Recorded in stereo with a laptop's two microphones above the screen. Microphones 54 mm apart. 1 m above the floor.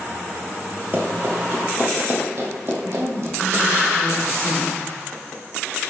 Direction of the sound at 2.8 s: 60° right (ahead or behind).